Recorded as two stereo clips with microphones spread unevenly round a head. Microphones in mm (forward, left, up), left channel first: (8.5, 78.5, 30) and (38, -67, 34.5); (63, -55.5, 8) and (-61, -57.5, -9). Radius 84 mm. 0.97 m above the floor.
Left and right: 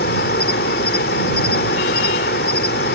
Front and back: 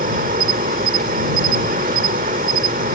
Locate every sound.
0.0 s an insect: 135° left